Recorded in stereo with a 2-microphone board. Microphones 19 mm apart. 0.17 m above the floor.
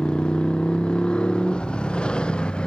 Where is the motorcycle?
80° left.